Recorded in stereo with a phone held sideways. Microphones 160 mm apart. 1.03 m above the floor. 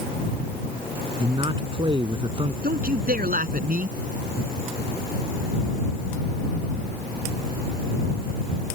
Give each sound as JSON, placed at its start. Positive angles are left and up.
{"t": 1.2, "sound": "a man speaking", "side_deg": -30}
{"t": 2.6, "sound": "a man speaking", "side_deg": -65}